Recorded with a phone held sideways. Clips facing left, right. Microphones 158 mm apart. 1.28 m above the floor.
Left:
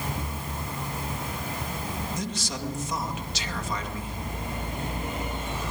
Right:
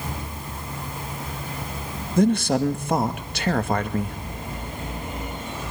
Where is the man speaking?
60° right (ahead or behind), 2 m.